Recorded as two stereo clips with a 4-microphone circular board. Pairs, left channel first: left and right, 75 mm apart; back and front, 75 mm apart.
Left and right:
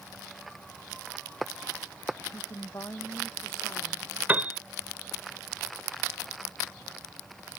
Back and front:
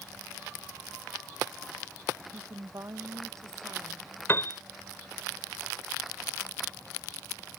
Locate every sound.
2.3 s a woman speaking: 45° left
4.3 s a piano: 145° right